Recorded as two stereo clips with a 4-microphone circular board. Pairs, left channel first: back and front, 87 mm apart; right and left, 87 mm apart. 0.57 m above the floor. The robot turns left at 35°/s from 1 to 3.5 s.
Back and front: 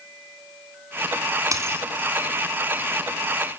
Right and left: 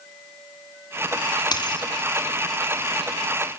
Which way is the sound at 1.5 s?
55° right.